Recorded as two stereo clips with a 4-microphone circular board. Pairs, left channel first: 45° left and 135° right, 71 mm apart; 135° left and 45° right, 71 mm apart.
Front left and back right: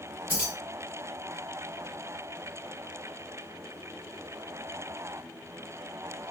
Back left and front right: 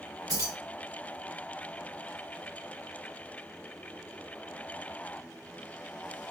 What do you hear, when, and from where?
0.3 s keys jangling: 65° right, 1.9 m